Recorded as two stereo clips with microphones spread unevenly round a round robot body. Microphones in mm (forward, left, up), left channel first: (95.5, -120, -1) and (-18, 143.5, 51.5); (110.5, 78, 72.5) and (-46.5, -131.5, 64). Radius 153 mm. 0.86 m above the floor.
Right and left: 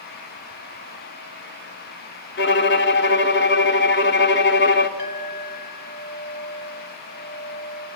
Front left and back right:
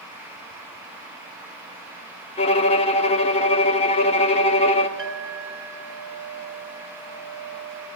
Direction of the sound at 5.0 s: 90° right.